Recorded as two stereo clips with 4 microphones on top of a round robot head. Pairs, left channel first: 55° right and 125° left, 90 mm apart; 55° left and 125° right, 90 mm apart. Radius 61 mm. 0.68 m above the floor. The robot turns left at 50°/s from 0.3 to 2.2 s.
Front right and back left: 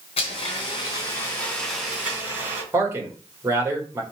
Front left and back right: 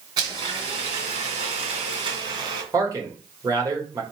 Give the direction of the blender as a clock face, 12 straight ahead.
2 o'clock.